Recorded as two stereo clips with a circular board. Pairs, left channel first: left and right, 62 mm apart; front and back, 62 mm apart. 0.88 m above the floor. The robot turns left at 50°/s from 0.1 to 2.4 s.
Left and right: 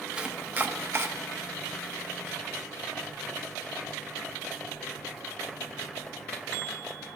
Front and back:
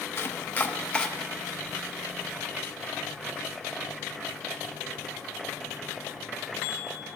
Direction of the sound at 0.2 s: 25° right.